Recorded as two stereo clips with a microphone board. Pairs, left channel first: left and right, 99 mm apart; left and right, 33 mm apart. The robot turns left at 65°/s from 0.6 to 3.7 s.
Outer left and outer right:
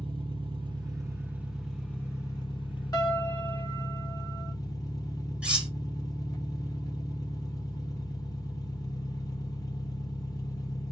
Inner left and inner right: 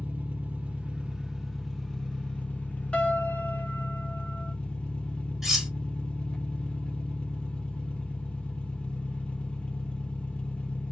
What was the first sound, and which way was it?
An engine running, 110° right.